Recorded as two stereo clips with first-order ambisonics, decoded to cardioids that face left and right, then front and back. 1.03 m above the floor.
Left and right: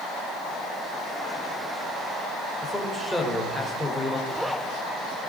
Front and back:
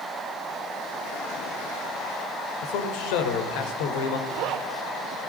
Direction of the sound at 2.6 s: Straight ahead.